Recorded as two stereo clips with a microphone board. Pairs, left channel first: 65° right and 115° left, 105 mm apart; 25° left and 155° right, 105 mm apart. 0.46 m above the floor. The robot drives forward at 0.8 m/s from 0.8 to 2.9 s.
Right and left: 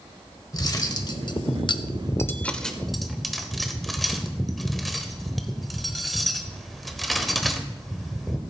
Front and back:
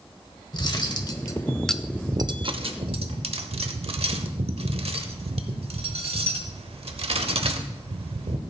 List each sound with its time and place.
0.5 s cutlery clinking: 20° right, 1.0 m; by 8.4 s 155° right, 0.9 m